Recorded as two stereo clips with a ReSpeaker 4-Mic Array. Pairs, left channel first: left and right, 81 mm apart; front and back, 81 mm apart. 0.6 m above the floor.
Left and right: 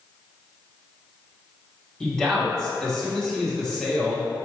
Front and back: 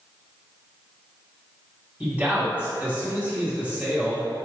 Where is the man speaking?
160° left, 1.1 m.